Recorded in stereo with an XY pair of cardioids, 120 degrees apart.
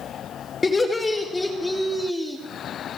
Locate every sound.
0.6 s laughter: 20° left, 2.5 m; by 2.4 s 5° right, 1.9 m